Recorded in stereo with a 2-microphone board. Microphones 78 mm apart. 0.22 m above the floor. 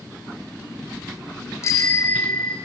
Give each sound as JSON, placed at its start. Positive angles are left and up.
{"t": 1.6, "sound": "a bicycle bell", "side_deg": 45, "distance_m": 2.5}